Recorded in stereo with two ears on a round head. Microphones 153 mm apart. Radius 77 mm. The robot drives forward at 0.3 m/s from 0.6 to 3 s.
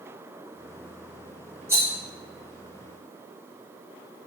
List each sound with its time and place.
1.7 s a rattle: 15° right (ahead or behind), 1.4 m